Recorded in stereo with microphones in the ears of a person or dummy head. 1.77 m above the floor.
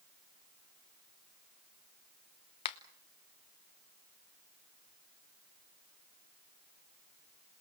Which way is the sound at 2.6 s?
35° left (ahead or behind).